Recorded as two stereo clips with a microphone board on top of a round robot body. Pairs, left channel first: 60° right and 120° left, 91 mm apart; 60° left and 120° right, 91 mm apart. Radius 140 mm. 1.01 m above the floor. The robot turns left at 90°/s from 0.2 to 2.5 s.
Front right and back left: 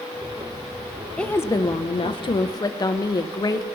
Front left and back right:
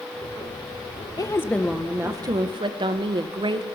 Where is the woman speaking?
20° left, 1.1 m; by 3.6 s 100° right, 1.1 m.